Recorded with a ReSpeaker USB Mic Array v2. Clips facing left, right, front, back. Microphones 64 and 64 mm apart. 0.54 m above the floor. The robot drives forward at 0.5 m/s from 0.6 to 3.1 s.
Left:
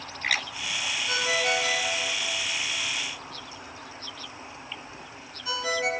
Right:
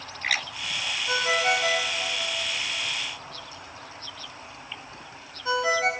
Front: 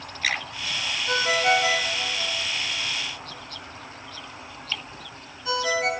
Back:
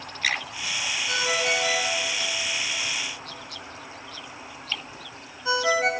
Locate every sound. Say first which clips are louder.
1.1 s a ringtone: right 3 dB, front 5 dB; 30° right, 1.0 m; by 5.9 s 130° right, 0.7 m